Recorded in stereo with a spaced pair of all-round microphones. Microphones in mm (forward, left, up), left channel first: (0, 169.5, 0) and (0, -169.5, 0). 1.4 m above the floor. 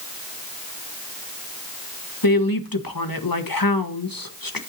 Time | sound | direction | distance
2.2 | a woman speaking | 85° left | 1.6 m